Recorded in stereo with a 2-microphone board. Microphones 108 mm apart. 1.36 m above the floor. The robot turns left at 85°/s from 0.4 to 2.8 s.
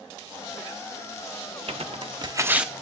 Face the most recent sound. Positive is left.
turn(degrees=5)  # may be behind; listen again after turning